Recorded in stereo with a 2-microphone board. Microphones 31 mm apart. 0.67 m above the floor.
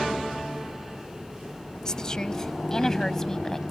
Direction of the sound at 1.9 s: 20° left (ahead or behind).